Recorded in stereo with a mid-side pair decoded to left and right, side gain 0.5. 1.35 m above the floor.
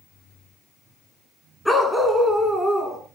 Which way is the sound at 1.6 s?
10° left.